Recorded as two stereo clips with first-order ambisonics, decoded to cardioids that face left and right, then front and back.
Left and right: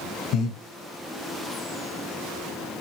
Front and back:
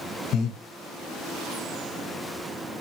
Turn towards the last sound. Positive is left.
turn(degrees=50)